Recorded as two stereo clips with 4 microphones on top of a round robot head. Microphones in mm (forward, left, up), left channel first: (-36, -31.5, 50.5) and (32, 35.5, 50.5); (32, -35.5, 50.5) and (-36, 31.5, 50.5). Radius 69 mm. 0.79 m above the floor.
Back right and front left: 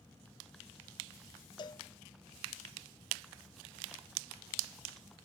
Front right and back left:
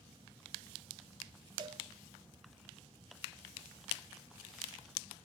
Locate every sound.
1.6 s a cowbell: straight behind, 0.6 m